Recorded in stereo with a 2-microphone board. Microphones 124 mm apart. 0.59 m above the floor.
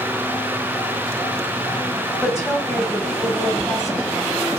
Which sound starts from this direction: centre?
A woman speaking, at 2.2 s.